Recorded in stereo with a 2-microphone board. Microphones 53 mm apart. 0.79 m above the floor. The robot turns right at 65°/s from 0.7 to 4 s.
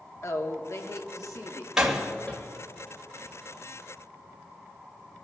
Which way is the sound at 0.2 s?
65° left.